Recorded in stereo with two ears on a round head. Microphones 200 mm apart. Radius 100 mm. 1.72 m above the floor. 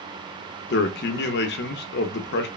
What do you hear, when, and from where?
0.7 s a man speaking: 50° left (ahead or behind), 0.5 m